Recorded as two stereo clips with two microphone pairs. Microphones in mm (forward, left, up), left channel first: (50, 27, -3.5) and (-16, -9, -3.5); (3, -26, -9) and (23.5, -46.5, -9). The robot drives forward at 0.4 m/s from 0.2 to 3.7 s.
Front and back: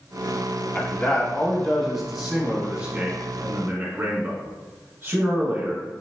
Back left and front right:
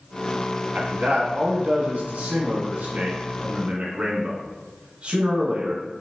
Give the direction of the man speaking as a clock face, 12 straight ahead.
1 o'clock.